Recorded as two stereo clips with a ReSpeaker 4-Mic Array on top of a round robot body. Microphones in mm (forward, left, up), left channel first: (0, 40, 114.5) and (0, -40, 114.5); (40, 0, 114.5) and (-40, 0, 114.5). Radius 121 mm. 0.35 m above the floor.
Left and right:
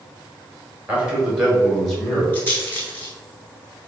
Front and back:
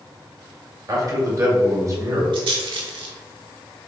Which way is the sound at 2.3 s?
160° left.